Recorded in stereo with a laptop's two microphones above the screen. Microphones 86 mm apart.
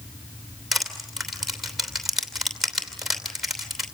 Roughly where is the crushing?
Centre.